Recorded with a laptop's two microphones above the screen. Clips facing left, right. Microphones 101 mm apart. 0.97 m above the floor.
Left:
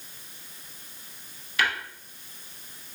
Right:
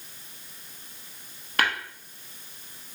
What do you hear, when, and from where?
1.6 s tapping: 55° right (ahead or behind), 0.8 m